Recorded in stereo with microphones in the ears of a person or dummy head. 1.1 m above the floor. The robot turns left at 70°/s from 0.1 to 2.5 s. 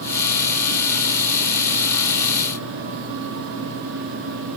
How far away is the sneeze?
No sneeze in this recording.